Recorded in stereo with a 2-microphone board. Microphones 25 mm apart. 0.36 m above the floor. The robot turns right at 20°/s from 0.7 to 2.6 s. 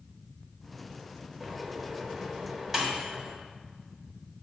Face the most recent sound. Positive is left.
turn(degrees=-10)  # may be behind; listen again after turning